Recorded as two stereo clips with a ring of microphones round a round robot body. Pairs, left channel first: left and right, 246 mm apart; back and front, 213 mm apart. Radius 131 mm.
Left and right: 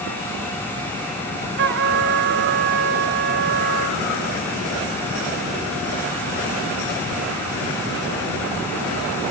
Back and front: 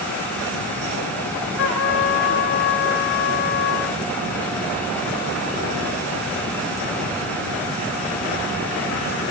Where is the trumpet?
135° right, 1.6 m.